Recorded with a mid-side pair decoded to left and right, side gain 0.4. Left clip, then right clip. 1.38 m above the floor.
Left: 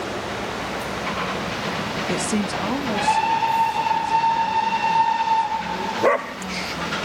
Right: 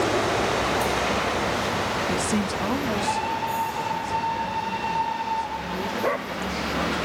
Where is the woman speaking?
25° left, 1.3 m; by 6.9 s straight ahead, 9 m.